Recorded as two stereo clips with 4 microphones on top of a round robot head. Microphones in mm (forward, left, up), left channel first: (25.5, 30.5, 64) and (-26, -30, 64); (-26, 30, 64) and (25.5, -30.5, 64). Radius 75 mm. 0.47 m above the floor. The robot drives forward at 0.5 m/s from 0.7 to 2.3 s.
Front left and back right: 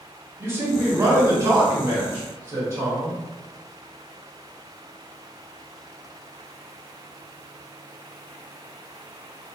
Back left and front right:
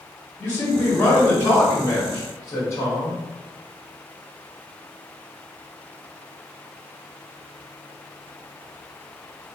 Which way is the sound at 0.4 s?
165° right.